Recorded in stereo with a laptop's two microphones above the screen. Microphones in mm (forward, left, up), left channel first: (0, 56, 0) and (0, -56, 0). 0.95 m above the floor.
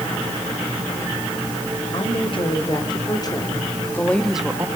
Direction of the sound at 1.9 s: 50° left (ahead or behind).